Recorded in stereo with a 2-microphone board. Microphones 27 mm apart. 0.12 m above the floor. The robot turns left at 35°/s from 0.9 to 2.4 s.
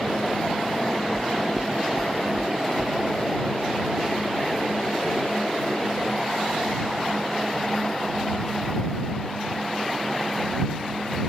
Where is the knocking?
50° right (ahead or behind).